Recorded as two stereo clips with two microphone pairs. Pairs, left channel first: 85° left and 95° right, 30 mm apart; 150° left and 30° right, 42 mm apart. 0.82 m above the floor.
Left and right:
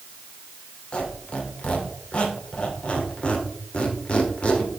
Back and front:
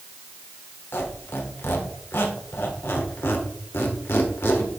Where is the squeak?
125° left, 1.4 m.